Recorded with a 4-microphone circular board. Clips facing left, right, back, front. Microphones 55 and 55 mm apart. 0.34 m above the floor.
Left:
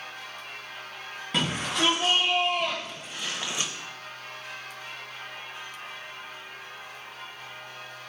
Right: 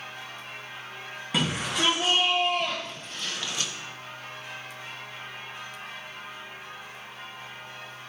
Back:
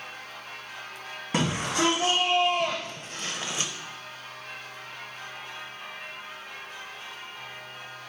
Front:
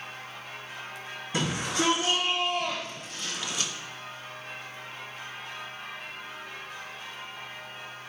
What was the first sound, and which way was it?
A shout, 175° right.